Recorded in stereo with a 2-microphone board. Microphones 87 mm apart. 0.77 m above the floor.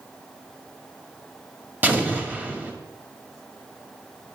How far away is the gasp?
No gasp in this recording.